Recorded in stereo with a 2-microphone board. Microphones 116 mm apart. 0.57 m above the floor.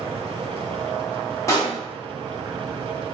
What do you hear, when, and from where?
1.5 s a pop: 25° left (ahead or behind), 0.9 m